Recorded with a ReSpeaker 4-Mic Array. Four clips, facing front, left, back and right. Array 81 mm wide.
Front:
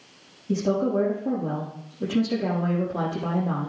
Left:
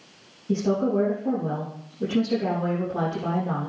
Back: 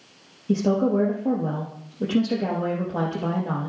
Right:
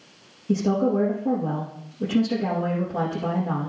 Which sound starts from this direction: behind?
A woman speaking, at 0.5 s.